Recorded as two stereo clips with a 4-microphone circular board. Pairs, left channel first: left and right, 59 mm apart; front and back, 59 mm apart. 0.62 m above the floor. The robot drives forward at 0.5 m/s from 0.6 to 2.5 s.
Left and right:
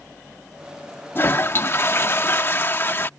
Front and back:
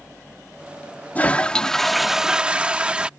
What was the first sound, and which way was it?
A toilet flushing, 55° left.